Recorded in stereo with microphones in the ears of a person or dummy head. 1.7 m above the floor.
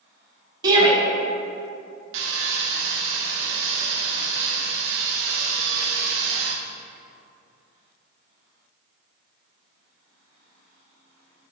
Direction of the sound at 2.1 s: 65° right (ahead or behind).